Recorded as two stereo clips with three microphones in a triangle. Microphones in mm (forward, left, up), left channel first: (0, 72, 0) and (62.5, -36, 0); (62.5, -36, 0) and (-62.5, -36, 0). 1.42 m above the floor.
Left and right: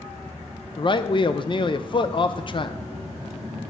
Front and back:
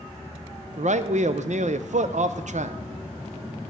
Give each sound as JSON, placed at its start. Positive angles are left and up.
{"t": 0.8, "sound": "a man speaking", "azimuth_deg": 165, "distance_m": 0.5}